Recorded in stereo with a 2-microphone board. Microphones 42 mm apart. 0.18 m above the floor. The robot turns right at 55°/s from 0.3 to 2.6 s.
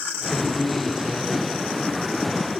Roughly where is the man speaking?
Behind.